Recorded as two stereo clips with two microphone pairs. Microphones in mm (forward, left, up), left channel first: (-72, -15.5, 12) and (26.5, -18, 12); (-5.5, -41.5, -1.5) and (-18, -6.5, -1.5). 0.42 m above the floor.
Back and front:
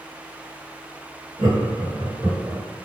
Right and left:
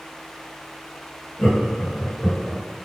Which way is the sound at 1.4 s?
15° right.